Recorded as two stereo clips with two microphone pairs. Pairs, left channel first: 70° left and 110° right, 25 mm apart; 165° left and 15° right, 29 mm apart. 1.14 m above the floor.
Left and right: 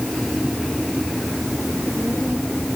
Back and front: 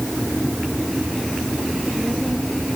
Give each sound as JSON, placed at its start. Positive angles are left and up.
{"t": 1.7, "sound": "a child speaking", "azimuth_deg": -80}